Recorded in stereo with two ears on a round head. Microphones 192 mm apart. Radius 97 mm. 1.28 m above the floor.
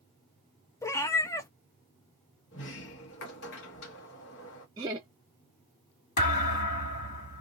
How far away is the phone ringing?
No phone ringing in this recording.